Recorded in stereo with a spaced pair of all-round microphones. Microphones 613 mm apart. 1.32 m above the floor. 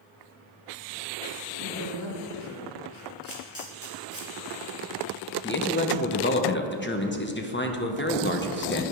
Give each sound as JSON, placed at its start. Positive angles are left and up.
{"t": 1.6, "sound": "a woman speaking", "side_deg": 55, "distance_m": 2.5}
{"t": 3.2, "sound": "a camera shutter", "side_deg": -20, "distance_m": 3.0}
{"t": 5.4, "sound": "a man speaking", "side_deg": 20, "distance_m": 1.1}